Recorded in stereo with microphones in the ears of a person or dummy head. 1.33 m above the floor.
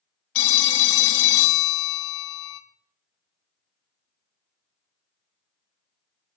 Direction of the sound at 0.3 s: 70° left (ahead or behind).